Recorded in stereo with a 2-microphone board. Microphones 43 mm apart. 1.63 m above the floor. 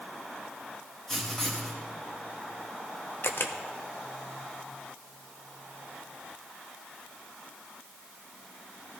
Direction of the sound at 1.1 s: 10° left (ahead or behind).